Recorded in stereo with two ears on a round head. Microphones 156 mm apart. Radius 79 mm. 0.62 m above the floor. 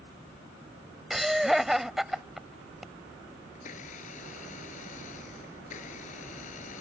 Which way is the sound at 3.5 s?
45° left (ahead or behind).